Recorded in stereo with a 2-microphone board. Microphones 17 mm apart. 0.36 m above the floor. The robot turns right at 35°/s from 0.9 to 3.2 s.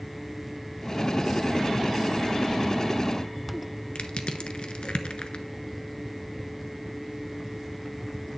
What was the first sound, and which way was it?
Crushing, 80° left.